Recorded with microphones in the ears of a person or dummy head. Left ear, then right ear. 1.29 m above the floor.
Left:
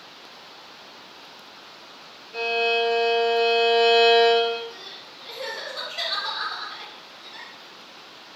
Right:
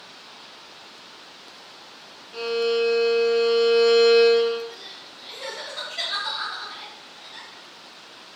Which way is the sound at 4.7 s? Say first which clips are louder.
Even; 15° left (ahead or behind).